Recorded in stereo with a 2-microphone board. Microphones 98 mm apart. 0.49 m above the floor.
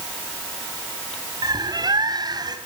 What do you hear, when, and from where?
1.4 s a bird: 45° right (ahead or behind), 2 m